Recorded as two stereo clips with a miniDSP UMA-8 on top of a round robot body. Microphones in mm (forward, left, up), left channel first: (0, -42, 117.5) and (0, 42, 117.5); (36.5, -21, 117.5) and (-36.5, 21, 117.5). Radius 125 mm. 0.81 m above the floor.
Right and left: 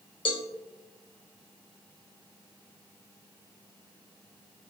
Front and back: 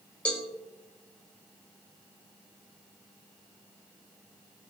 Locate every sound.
0.2 s a cowbell: 105° right, 2.5 m